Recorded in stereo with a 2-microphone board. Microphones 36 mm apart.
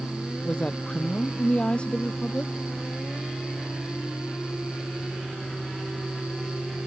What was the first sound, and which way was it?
A woman speaking, 25° left (ahead or behind).